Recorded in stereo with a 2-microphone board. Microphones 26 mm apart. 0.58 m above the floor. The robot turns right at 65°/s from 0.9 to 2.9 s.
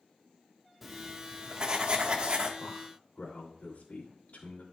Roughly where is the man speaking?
Left.